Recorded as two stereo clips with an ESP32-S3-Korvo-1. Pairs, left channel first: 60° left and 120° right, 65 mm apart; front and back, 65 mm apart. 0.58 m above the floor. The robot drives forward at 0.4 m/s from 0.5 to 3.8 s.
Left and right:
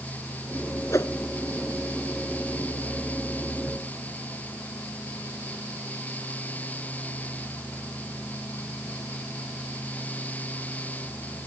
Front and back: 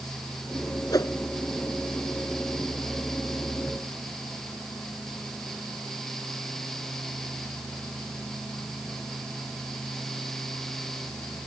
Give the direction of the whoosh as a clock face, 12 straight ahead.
11 o'clock.